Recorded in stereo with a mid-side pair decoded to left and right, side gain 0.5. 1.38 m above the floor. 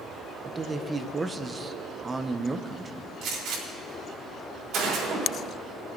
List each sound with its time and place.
0.5 s a man speaking: 25° right, 0.9 m
3.2 s a gunshot: 65° right, 4 m